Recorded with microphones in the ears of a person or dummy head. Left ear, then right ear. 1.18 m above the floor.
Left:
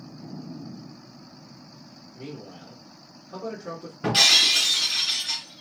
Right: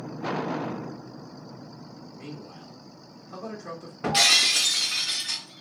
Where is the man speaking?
50° right (ahead or behind), 1.6 m.